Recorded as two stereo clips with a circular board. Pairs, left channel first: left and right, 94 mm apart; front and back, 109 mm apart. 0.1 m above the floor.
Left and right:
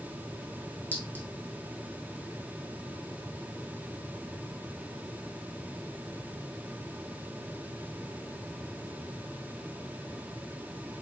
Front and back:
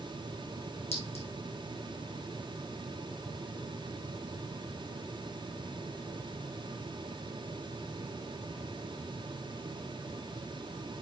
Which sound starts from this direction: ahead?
A clink, at 0.9 s.